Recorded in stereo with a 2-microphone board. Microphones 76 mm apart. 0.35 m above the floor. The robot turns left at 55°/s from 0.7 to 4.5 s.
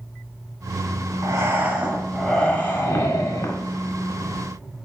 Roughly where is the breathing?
Behind right.